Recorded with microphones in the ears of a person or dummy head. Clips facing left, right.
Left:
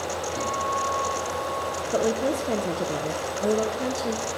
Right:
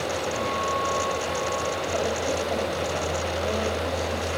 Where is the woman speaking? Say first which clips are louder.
Left 5 dB; 45° left (ahead or behind), 0.8 m.